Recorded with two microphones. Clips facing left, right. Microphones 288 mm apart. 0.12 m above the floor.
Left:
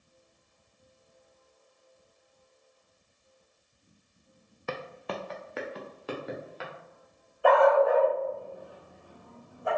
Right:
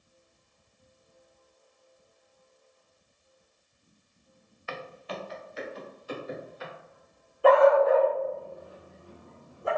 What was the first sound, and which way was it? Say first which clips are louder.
Footsteps: left 3 dB; 55° left (ahead or behind).